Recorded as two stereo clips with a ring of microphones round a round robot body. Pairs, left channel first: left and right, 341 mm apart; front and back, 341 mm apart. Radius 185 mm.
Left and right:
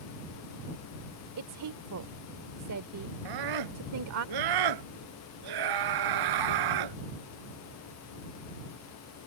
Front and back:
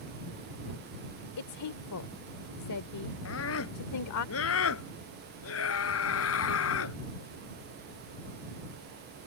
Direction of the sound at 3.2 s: 55° right.